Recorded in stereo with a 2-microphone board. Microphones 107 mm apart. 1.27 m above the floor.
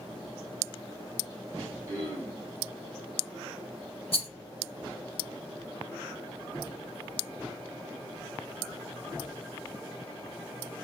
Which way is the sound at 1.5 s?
35° right (ahead or behind).